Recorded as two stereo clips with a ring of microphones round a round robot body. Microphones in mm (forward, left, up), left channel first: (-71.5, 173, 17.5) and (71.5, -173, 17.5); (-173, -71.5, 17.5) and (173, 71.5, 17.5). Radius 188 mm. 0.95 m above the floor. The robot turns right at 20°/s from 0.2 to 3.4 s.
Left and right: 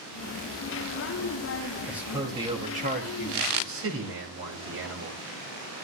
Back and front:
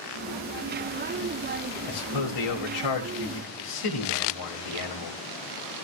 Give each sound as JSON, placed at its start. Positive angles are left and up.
{"t": 1.9, "sound": "a man speaking", "azimuth_deg": -155, "distance_m": 5.5}